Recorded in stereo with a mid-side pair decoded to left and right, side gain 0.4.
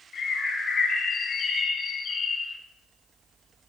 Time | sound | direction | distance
0.1 | a bird | 50° left | 0.6 m